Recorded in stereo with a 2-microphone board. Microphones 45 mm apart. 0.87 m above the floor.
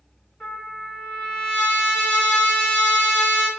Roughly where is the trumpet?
Left.